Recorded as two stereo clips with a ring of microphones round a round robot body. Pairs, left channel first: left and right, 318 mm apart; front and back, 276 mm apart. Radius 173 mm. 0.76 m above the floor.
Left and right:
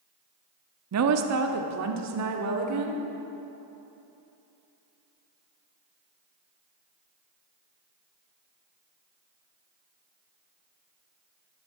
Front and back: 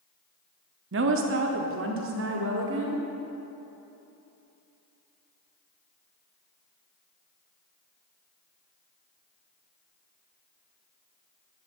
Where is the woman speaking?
130° right, 1.1 m.